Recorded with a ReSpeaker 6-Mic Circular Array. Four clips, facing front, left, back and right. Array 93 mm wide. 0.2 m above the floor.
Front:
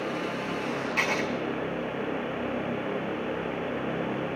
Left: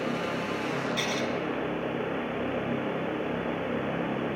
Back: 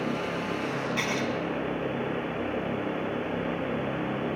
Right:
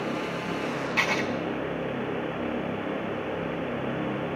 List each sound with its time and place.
1.0 s writing: 65° right, 2 m